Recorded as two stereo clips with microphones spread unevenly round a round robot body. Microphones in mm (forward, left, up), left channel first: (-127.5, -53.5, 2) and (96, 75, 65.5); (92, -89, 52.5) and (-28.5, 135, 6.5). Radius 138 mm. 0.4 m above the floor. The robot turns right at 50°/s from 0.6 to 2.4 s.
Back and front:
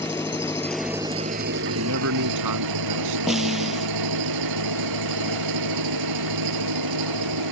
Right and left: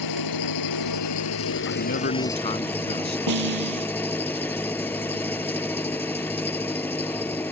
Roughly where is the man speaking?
Ahead right.